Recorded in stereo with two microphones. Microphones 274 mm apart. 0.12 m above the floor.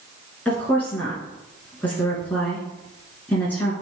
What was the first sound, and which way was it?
A woman speaking, 5° left (ahead or behind).